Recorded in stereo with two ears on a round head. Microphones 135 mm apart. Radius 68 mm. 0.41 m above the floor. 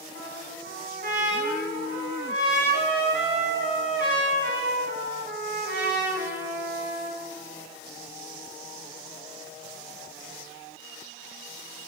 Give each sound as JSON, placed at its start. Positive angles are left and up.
{"t": 0.1, "sound": "a trumpet", "side_deg": -55, "distance_m": 3.0}